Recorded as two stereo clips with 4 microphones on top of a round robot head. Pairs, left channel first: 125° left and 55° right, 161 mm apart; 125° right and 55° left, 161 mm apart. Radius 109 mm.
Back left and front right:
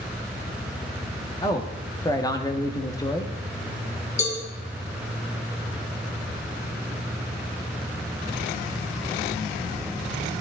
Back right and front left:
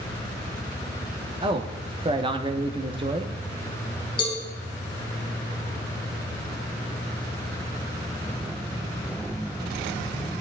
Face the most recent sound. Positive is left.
turn(degrees=175)